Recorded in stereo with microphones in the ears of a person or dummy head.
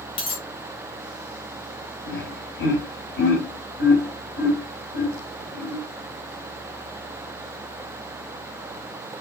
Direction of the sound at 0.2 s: 30° left (ahead or behind).